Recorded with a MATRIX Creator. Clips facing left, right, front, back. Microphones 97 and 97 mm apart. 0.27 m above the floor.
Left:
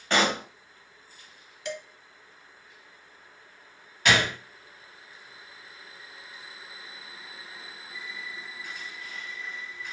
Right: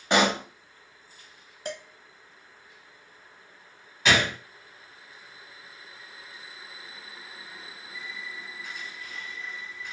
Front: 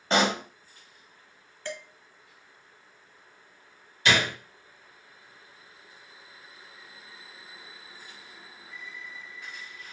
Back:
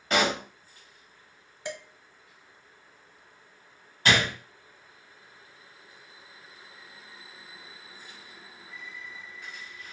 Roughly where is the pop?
Ahead right.